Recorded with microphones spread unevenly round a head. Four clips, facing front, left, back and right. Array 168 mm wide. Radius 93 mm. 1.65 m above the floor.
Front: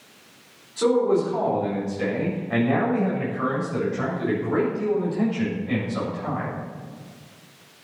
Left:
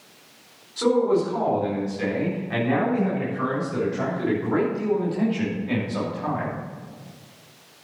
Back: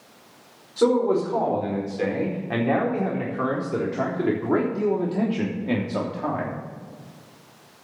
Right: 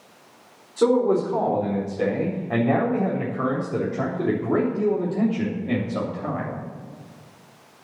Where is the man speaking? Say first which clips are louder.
Right 1 dB, even; 125° right, 5 m; by 6.5 s 170° right, 3 m.